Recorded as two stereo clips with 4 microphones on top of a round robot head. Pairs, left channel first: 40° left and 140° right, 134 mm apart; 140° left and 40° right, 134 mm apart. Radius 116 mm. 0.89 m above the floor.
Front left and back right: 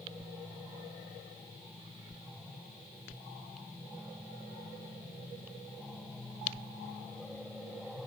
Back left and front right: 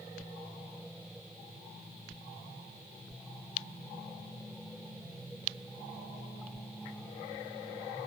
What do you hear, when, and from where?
Only background noise.